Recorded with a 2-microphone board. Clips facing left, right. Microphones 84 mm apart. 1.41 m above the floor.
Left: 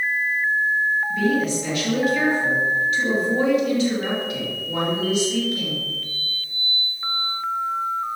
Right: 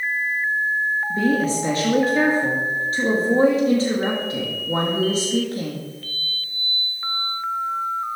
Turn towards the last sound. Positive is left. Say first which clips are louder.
# right 1 dB
turn(degrees=-35)  # may be behind; listen again after turning